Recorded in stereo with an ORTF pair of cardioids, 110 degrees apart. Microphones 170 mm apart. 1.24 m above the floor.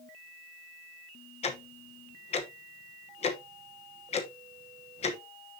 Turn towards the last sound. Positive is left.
turn(degrees=40)